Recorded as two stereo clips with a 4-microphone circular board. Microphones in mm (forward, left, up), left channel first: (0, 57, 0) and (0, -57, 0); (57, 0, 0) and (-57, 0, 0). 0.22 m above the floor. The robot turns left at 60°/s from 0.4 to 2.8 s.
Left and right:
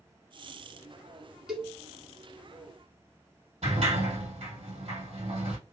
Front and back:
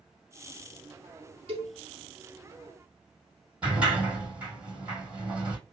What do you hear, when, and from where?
1.5 s a cowbell: 175° right, 1.1 m; by 1.8 s 170° left, 1.1 m
3.6 s a sliding door: 100° right, 2.5 m